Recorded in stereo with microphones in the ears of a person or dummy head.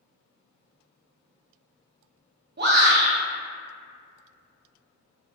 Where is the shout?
45° right (ahead or behind), 0.6 m.